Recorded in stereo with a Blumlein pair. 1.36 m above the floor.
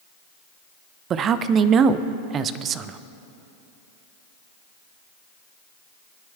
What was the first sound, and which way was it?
A man speaking, 30° right.